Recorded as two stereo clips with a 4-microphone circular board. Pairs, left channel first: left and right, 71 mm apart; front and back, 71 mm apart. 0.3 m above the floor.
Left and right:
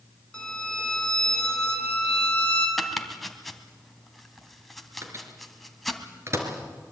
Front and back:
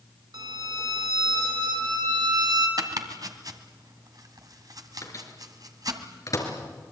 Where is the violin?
165° left, 4.5 m.